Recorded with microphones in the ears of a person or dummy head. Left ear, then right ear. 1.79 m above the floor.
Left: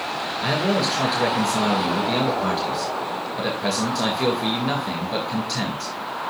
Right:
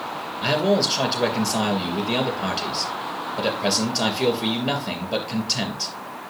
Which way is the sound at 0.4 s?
20° right (ahead or behind).